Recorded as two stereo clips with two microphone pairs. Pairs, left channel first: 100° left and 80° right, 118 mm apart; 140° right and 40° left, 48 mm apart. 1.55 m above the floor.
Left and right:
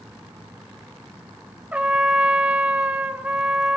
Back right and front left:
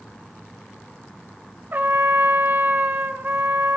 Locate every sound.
1.7 s a trumpet: straight ahead, 0.6 m